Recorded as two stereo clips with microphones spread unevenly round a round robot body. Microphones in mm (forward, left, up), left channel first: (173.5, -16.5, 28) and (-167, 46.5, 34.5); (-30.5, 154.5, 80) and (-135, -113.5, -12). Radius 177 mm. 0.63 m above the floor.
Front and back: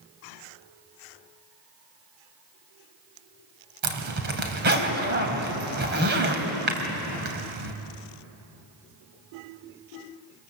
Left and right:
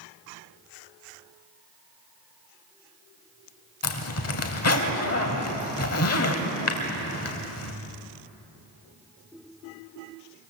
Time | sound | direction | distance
3.8 | a zipper | 110° left | 3 m